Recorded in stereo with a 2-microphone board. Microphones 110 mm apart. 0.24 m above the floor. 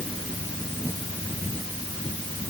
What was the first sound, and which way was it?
Only background noise.